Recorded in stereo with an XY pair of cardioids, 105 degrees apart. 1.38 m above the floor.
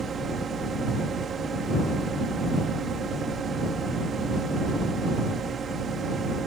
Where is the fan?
45° right.